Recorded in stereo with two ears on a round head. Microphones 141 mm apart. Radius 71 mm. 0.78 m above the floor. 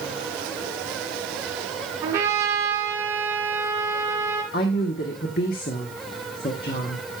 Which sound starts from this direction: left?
A woman speaking, at 4.5 s.